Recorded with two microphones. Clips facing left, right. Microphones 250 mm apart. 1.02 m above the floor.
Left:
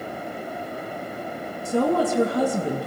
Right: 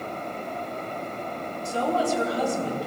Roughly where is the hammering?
I don't hear hammering.